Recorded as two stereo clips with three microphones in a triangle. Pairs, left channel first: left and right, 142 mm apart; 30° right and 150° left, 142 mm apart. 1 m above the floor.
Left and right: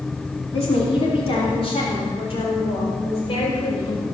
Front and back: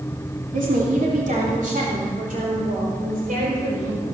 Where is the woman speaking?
135° left, 3 m.